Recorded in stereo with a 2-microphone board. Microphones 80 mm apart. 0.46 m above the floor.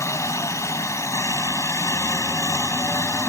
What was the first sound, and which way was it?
A helicopter, 40° left (ahead or behind).